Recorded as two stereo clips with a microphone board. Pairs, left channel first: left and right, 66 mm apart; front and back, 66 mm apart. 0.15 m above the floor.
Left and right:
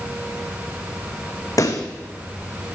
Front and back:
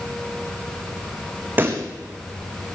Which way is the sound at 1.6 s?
120° left.